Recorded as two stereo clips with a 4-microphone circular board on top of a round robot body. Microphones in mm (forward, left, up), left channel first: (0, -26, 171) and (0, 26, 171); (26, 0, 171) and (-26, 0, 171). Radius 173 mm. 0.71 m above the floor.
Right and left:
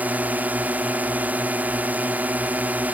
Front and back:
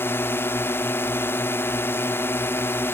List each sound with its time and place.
0.0 s a drone: 35° left